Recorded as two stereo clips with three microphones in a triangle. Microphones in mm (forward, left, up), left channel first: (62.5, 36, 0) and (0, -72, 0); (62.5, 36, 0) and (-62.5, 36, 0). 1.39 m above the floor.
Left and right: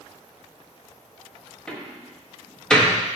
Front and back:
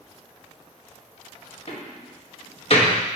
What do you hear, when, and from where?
1.7 s a door slam: 25° right, 1.1 m